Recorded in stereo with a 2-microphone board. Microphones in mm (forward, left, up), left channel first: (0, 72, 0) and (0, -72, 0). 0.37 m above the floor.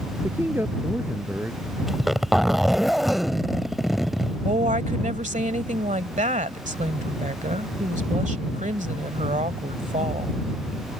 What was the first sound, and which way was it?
A man speaking, 15° right (ahead or behind).